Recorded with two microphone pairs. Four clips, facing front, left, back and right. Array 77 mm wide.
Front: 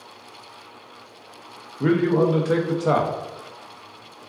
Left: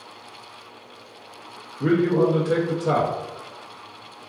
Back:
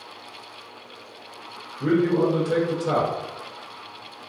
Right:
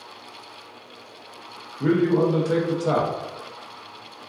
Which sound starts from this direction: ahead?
A man speaking, at 1.8 s.